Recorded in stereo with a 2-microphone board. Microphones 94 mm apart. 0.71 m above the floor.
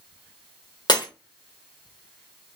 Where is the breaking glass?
50° left (ahead or behind), 1.1 m.